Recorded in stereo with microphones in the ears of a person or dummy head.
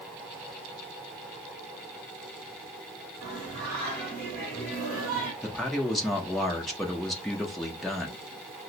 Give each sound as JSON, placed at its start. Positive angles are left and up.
{"t": 3.2, "sound": "singing", "side_deg": -35, "distance_m": 1.3}
{"t": 5.4, "sound": "a man speaking", "side_deg": 5, "distance_m": 0.5}